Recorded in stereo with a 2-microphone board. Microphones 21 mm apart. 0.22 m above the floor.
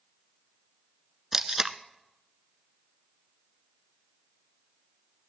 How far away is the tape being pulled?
About 0.7 m.